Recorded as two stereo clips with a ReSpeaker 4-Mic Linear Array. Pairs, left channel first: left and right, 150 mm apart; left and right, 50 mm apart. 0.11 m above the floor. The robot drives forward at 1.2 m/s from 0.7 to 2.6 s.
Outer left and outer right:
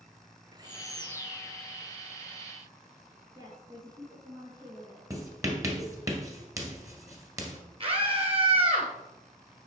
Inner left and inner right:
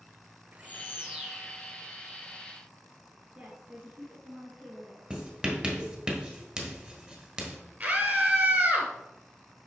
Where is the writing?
20° right (ahead or behind), 1.3 m.